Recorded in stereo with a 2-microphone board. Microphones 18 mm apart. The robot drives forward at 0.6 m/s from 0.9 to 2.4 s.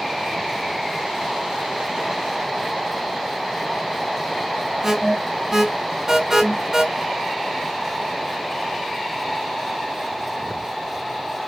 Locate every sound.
4.8 s an alarm: 30° right (ahead or behind), 4 m